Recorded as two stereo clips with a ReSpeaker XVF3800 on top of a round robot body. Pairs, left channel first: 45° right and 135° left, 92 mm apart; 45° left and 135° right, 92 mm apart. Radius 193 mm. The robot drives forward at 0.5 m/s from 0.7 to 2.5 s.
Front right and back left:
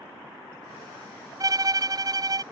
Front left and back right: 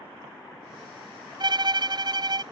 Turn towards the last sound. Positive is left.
turn(degrees=-175)